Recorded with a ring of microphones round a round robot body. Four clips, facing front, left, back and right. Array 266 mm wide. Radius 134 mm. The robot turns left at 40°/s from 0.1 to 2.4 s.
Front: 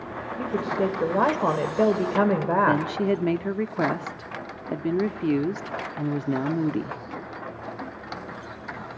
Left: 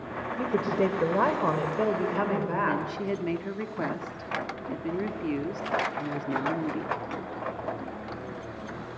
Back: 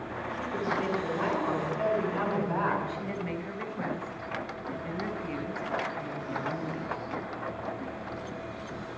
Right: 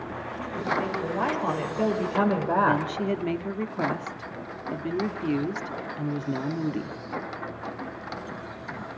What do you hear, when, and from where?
0.4 s a woman speaking: 65° left, 5 m; by 2.8 s 20° right, 5 m
2.7 s a woman speaking: 5° right, 1.8 m